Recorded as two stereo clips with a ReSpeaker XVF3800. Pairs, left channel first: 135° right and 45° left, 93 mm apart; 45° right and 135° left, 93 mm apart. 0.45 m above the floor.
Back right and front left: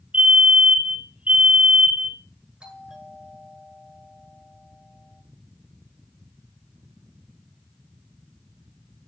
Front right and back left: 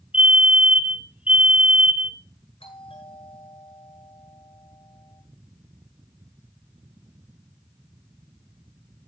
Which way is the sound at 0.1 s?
85° left.